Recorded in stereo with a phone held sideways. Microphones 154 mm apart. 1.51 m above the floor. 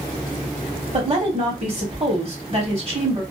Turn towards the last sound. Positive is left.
turn(degrees=-40)  # may be behind; listen again after turning